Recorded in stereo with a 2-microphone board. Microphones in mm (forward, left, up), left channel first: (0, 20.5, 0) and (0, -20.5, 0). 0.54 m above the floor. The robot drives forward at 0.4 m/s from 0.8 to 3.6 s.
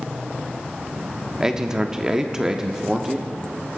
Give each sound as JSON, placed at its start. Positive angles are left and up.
{"t": 1.4, "sound": "a man speaking", "side_deg": -15, "distance_m": 0.7}